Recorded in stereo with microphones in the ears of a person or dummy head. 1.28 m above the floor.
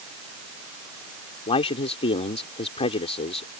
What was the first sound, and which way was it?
A man speaking, 30° left (ahead or behind).